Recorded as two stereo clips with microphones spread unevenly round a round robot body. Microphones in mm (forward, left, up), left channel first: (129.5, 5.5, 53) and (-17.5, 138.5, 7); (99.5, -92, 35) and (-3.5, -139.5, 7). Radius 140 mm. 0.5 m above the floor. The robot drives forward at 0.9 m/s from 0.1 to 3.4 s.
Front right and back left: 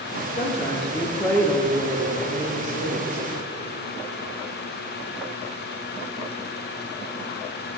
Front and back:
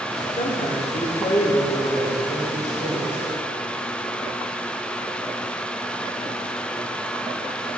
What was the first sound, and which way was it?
A woman speaking, 15° left.